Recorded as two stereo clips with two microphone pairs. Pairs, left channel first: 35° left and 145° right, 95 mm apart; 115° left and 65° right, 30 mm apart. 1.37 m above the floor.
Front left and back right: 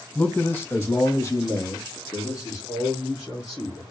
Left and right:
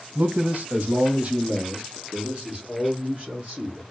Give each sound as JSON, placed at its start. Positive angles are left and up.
{"t": 0.1, "sound": "a man speaking", "azimuth_deg": -40, "distance_m": 0.6}